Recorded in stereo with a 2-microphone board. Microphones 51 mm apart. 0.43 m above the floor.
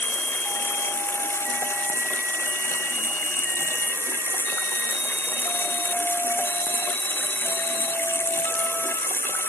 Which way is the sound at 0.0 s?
50° left (ahead or behind).